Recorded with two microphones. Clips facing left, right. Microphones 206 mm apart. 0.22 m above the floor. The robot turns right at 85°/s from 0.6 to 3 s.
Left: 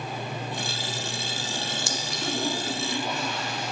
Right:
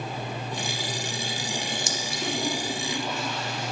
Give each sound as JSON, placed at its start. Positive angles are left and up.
{"t": 1.9, "sound": "a clink", "side_deg": -20, "distance_m": 0.9}